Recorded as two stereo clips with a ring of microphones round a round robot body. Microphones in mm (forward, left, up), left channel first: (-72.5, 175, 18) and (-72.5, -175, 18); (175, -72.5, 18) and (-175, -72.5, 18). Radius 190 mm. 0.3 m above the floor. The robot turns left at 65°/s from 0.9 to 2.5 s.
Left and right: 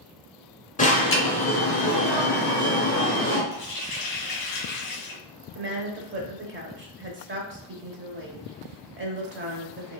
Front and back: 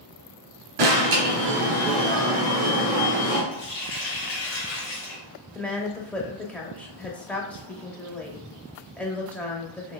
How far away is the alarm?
About 2 m.